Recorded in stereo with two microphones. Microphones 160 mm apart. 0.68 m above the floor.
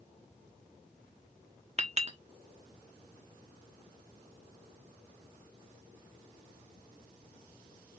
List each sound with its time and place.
1.8 s a clink: 40° right (ahead or behind), 0.9 m